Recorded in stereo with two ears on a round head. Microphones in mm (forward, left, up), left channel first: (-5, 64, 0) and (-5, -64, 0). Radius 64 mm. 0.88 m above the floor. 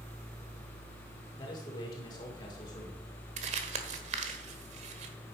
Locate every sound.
1.4 s a man speaking: 30° left (ahead or behind), 2.5 m
3.4 s crumpling: 55° right (ahead or behind), 1.3 m